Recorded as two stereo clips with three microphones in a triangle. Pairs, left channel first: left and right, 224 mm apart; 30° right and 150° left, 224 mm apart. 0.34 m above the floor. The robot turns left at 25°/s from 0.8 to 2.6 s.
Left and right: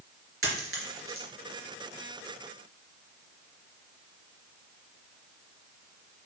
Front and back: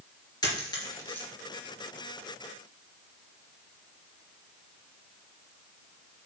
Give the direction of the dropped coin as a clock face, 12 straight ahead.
3 o'clock.